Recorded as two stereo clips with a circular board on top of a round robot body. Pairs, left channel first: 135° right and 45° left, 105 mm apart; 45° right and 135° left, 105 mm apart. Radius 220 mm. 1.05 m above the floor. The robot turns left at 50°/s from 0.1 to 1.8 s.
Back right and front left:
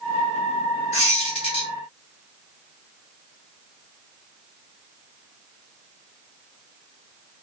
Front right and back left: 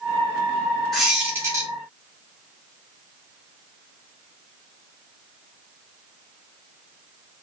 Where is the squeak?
135° right, 0.7 m; by 1.7 s 170° right, 0.7 m.